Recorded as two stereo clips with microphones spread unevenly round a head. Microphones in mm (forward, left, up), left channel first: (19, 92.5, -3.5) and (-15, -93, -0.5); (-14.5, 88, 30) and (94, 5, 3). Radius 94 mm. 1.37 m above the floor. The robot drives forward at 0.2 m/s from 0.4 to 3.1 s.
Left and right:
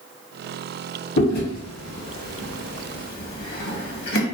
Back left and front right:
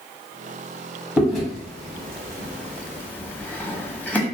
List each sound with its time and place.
1.2 s chewing: 45° left, 1.3 m; by 4.2 s 60° left, 1.1 m